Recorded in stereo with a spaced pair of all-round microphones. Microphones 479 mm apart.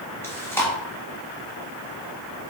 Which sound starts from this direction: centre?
Chewing, at 0.2 s.